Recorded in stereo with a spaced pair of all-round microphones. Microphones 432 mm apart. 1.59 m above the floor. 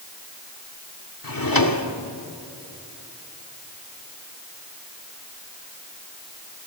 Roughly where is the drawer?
Left.